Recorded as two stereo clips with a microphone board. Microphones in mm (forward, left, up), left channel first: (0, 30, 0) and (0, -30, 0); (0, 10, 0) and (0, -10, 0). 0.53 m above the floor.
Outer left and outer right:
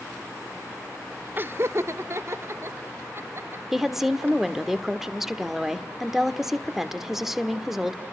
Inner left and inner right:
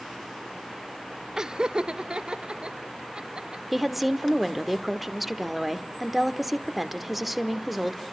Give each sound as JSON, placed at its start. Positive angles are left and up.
{"t": 1.4, "sound": "laughter", "side_deg": -35, "distance_m": 0.8}
{"t": 3.7, "sound": "a woman speaking", "side_deg": -5, "distance_m": 1.4}